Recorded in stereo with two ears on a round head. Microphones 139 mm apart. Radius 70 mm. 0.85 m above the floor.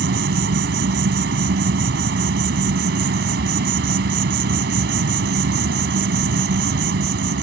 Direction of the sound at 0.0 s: 75° right (ahead or behind).